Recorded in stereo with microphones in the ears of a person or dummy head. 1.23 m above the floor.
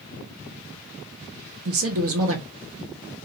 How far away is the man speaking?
About 1.1 m.